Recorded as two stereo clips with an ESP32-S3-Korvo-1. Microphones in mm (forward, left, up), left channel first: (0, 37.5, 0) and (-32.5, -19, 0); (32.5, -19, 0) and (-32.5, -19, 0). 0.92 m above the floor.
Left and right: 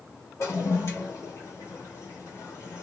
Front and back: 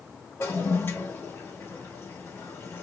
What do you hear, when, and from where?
0.4 s a toilet flushing: 40° left, 1.2 m